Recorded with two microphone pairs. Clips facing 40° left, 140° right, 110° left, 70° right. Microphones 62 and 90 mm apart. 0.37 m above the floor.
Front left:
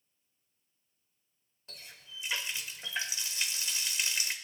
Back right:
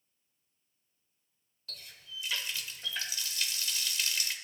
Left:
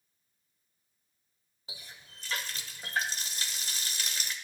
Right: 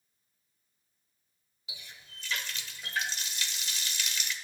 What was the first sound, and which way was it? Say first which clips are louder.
A running tap: back right 2 dB, even; 95° left.